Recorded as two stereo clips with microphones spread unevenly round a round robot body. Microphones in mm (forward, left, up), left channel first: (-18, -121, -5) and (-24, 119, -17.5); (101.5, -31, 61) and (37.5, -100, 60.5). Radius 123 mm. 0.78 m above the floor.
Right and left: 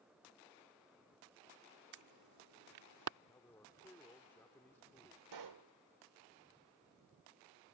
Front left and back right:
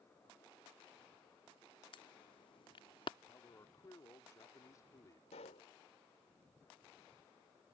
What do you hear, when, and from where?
1.9 s an alarm: 85° left
3.3 s a man speaking: 5° right
5.3 s a pop: 85° left